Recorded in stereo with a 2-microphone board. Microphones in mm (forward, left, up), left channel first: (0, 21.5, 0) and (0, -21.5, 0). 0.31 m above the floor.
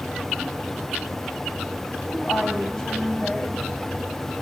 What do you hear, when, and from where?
2.1 s a woman speaking: 10° left (ahead or behind), 1.6 m